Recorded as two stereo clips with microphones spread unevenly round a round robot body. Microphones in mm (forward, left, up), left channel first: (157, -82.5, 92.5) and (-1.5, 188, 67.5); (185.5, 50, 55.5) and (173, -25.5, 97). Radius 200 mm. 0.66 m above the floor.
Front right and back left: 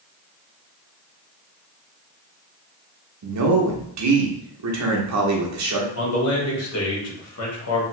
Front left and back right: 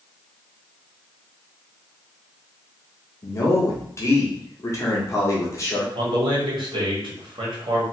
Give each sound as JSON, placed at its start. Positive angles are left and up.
{"t": 3.2, "sound": "a man speaking", "azimuth_deg": 95, "distance_m": 1.0}
{"t": 6.0, "sound": "a man speaking", "azimuth_deg": -70, "distance_m": 1.4}